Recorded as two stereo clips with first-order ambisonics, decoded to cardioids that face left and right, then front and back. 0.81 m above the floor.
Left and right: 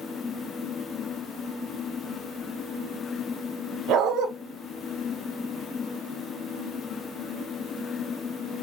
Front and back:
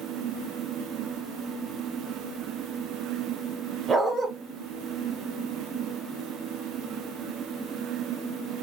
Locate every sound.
3.9 s a dog barking: 110° right, 0.8 m